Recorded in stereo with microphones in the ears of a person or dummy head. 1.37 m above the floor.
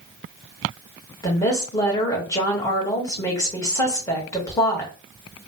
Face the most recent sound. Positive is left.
turn(degrees=15)  # may be behind; listen again after turning